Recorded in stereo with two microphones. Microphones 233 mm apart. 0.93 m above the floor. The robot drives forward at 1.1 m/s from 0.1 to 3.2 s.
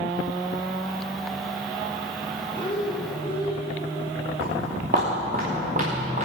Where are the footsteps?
40° right (ahead or behind), 5 m; by 6.3 s 30° right (ahead or behind), 5.5 m.